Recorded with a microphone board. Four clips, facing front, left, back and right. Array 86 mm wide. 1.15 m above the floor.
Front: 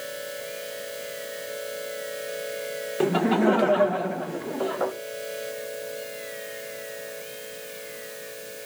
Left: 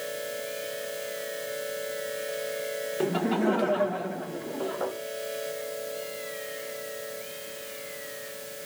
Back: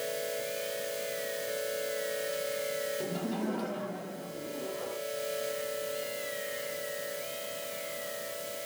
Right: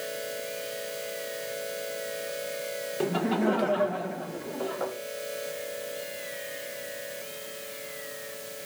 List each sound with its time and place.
3.0 s laughter: straight ahead, 1.2 m